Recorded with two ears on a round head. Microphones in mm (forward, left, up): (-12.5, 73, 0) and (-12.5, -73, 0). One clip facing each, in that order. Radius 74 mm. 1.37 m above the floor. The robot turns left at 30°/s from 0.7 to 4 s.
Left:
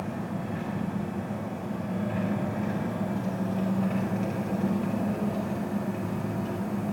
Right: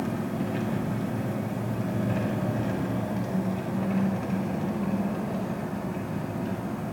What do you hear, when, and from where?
0.0 s an engine running: 80° right, 2 m; by 6.9 s straight behind, 2 m